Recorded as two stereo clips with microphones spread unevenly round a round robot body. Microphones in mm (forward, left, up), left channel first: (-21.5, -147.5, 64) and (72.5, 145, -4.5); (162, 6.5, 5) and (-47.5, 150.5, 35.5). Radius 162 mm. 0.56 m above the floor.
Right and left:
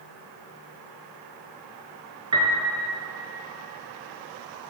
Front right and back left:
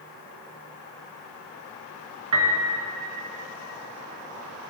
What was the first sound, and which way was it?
A piano, 155° left.